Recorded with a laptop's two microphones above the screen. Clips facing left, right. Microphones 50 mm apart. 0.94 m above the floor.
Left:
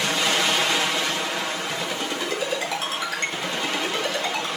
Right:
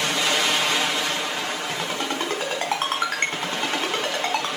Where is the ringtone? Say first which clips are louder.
Right 1 dB; 45° right (ahead or behind), 3.5 m.